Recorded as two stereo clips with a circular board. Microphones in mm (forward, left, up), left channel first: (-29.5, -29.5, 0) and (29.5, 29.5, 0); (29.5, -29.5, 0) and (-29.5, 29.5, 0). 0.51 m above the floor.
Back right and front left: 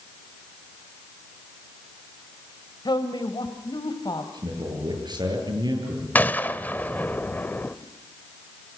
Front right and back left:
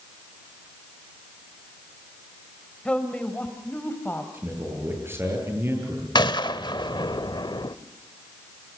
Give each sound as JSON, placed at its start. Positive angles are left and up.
{"t": 2.9, "sound": "a woman speaking", "azimuth_deg": -120, "distance_m": 2.5}
{"t": 4.3, "sound": "a man speaking", "azimuth_deg": 75, "distance_m": 9.5}
{"t": 6.2, "sound": "a gunshot", "azimuth_deg": -65, "distance_m": 1.0}